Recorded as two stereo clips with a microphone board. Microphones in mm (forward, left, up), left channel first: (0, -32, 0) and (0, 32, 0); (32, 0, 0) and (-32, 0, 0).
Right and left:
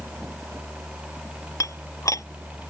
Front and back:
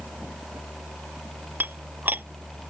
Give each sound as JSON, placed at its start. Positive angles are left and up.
{"t": 1.6, "sound": "dishes clattering", "azimuth_deg": -120}